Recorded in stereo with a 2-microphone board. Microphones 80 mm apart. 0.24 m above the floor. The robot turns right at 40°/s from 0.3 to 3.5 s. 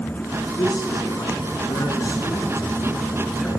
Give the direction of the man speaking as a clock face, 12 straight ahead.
10 o'clock.